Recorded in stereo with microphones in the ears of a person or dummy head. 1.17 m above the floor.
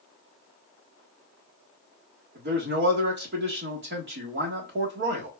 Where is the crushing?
No crushing in this recording.